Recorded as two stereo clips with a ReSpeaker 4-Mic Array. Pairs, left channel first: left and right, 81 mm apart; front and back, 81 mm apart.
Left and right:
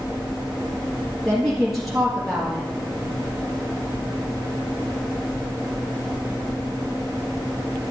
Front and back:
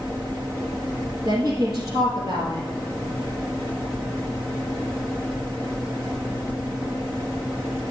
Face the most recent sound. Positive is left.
turn(degrees=180)